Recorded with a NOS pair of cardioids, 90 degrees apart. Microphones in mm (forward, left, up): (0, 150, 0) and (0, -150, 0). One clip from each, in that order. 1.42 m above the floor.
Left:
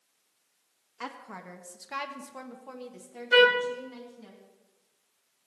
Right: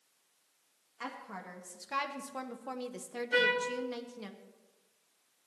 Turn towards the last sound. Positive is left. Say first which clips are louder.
# left 9 dB
turn(degrees=60)